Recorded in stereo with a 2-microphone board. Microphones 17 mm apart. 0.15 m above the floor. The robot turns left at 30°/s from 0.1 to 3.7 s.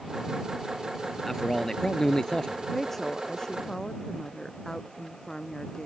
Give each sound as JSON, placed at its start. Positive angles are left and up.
{"t": 1.2, "sound": "a man speaking", "azimuth_deg": 160}
{"t": 2.7, "sound": "a woman speaking", "side_deg": 10}